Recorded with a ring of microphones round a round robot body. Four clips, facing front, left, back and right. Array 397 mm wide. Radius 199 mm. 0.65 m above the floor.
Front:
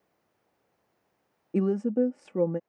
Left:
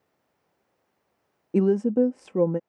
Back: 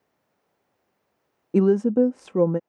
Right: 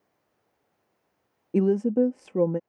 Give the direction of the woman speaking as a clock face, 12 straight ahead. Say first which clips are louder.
Left 1 dB, back 7 dB; 6 o'clock.